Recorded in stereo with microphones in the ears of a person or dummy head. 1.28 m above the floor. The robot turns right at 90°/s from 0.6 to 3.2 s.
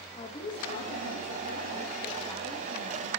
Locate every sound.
0.1 s a woman speaking: 30° left, 1.3 m; by 3.1 s 105° right, 1.3 m